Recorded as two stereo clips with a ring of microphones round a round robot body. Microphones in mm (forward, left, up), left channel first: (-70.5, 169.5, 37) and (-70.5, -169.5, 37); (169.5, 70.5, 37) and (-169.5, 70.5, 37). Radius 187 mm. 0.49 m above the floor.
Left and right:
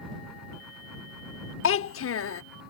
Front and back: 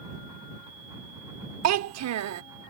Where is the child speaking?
140° left.